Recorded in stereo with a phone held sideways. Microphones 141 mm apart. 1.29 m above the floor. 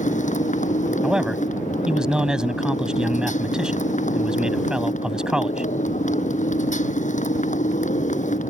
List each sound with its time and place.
0.0 s a motorcycle: 60° left (ahead or behind)
1.0 s a man speaking: 5° right (ahead or behind)